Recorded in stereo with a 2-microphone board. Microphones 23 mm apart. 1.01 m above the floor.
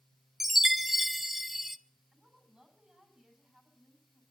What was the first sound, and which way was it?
A chime, 10° right (ahead or behind).